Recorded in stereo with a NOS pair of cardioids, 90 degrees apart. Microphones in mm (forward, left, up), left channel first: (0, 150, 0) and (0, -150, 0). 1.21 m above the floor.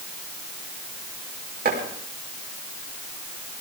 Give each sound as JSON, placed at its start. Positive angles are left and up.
{"t": 1.6, "sound": "chopping", "azimuth_deg": -30, "distance_m": 5.0}